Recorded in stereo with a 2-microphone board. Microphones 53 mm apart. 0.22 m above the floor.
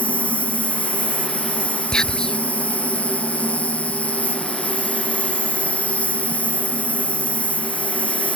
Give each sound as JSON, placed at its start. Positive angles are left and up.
{"t": 0.0, "sound": "an insect", "side_deg": 25}
{"t": 1.9, "sound": "whispering", "side_deg": 15}